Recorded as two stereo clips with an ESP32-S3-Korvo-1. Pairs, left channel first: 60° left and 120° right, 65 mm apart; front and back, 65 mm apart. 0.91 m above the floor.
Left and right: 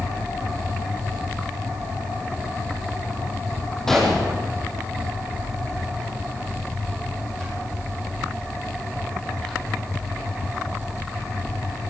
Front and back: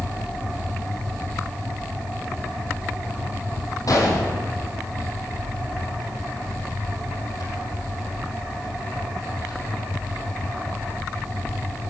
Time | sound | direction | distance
3.9 | a gunshot | 25° right | 6 m